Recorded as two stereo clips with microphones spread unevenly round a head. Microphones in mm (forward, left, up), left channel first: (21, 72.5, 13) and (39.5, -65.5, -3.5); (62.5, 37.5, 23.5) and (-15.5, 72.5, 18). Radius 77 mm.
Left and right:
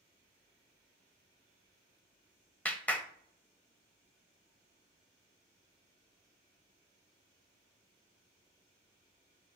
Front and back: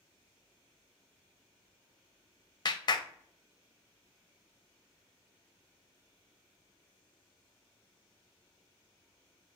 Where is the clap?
15° left, 0.6 m.